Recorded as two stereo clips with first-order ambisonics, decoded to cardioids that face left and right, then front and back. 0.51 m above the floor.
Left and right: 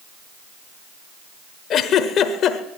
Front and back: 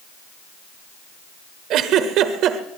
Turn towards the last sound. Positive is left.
turn(degrees=140)